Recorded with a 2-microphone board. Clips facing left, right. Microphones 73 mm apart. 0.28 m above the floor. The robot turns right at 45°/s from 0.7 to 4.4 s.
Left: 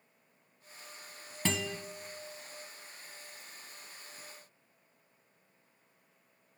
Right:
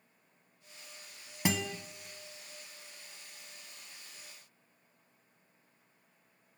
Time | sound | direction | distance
1.4 | a guitar | 15° right (ahead or behind) | 0.6 m